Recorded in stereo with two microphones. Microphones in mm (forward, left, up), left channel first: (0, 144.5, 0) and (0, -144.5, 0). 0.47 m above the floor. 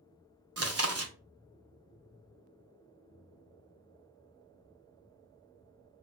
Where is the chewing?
55° right (ahead or behind), 0.6 m.